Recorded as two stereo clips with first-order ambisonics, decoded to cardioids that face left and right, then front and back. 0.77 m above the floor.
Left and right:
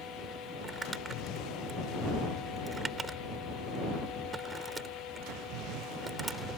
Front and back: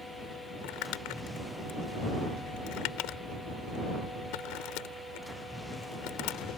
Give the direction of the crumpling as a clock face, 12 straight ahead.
12 o'clock.